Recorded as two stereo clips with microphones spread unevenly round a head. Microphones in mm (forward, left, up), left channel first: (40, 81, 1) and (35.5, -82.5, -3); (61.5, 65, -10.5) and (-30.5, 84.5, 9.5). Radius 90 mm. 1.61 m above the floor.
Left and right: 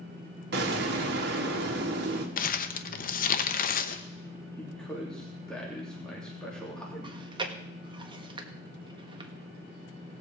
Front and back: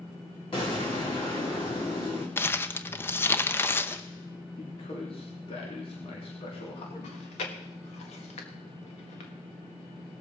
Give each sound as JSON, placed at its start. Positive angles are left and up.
{"t": 0.5, "sound": "an explosion", "azimuth_deg": -75, "distance_m": 2.0}
{"t": 2.4, "sound": "crumpling", "azimuth_deg": 60, "distance_m": 0.9}
{"t": 4.6, "sound": "a man speaking", "azimuth_deg": 5, "distance_m": 3.0}
{"t": 7.0, "sound": "chewing", "azimuth_deg": -30, "distance_m": 1.6}